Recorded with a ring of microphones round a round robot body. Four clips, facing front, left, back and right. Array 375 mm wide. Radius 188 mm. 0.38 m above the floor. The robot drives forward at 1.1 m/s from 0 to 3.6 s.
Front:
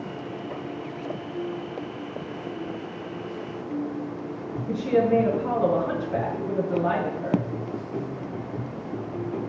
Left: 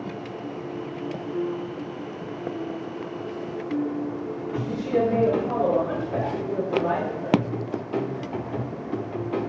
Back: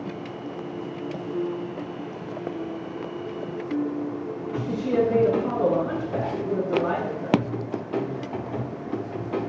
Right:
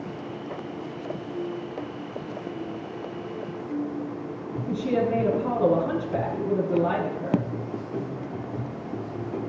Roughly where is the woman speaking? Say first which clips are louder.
Left 1 dB, front 1 dB; behind right.